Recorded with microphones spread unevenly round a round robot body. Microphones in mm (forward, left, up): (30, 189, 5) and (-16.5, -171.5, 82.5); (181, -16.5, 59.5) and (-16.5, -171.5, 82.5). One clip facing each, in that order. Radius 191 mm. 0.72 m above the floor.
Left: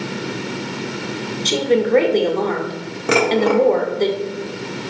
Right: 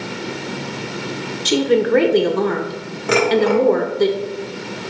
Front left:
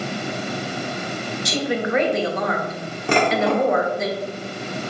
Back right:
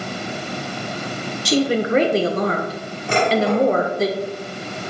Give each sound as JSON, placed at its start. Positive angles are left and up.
{"t": 1.4, "sound": "a woman speaking", "azimuth_deg": -170, "distance_m": 0.8}
{"t": 3.1, "sound": "dishes clattering", "azimuth_deg": 80, "distance_m": 1.0}